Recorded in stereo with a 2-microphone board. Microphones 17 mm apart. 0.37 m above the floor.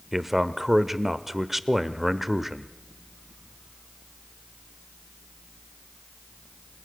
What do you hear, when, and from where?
0.1 s a man speaking: 10° right (ahead or behind), 1.0 m